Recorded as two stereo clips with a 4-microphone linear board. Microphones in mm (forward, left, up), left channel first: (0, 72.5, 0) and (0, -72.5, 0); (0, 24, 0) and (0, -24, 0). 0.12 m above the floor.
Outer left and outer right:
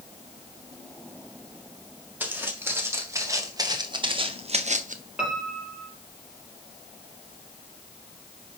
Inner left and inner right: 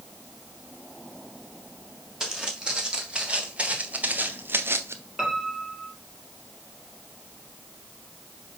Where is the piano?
5° right (ahead or behind), 2.5 m.